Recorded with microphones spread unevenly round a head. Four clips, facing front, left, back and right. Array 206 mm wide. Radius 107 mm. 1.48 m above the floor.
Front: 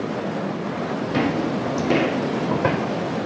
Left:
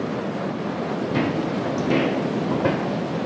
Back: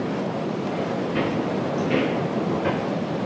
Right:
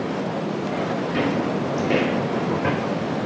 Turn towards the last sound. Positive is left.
turn(degrees=15)